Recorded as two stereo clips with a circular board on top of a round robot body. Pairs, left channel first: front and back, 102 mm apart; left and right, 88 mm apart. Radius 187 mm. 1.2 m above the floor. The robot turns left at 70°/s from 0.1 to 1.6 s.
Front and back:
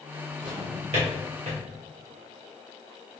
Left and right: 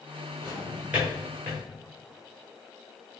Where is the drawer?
130° right, 1.7 m; by 1.6 s 150° left, 1.7 m.